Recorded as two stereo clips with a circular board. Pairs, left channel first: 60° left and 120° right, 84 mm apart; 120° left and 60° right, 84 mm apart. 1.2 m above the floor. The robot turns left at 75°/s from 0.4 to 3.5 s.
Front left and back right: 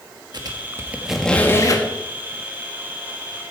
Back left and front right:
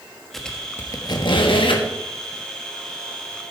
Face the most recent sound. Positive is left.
turn(degrees=-25)